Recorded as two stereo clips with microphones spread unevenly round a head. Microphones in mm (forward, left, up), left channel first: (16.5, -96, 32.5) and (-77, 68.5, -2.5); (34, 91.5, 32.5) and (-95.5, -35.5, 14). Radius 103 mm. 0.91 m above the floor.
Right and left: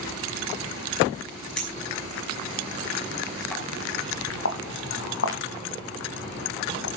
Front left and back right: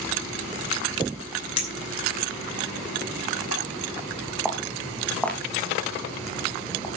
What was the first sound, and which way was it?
A clink, 25° left.